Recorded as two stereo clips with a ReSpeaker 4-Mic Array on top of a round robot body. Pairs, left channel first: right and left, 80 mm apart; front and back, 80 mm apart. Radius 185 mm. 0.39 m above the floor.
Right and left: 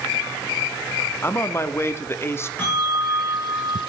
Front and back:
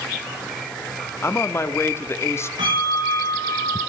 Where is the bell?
155° right, 7.5 m.